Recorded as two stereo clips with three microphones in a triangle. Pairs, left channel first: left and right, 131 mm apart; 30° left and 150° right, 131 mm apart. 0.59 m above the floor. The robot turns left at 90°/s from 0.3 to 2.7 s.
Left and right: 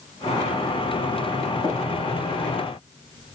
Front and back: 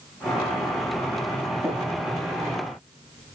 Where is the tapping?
140° left, 4.5 m; by 1.8 s 130° left, 4.5 m.